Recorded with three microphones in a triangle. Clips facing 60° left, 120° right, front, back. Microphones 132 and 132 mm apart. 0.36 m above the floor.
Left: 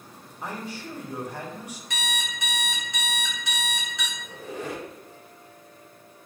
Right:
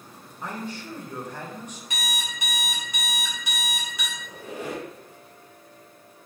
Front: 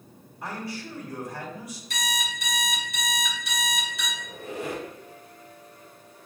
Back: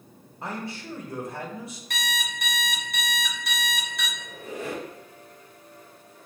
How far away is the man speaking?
About 1.0 m.